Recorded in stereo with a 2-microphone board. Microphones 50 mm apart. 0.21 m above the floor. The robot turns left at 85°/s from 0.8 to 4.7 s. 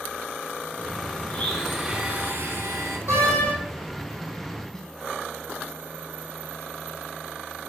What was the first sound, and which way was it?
A blender, 35° left.